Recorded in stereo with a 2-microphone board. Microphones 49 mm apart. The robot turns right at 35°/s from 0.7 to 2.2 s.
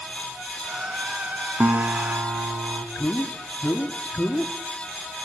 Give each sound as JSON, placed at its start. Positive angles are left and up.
{"t": 1.6, "sound": "a guitar", "side_deg": -50, "distance_m": 2.0}
{"t": 3.0, "sound": "a man speaking", "side_deg": 35, "distance_m": 1.5}